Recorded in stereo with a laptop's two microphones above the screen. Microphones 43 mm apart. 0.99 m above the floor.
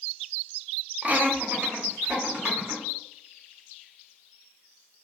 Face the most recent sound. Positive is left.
turn(degrees=-40)  # may be behind; listen again after turning